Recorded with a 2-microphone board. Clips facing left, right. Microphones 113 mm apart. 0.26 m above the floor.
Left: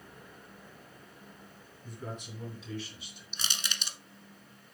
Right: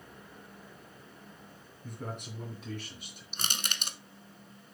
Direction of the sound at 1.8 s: 55° right (ahead or behind).